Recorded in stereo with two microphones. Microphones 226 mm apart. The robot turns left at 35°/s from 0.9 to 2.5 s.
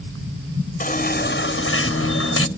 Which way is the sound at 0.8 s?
140° left.